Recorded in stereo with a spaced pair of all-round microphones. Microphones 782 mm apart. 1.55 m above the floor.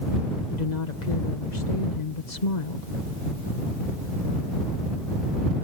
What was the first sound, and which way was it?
A woman speaking, 70° left (ahead or behind).